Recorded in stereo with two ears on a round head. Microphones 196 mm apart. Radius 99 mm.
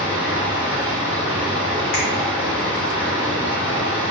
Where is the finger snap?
45° left (ahead or behind), 1.1 m.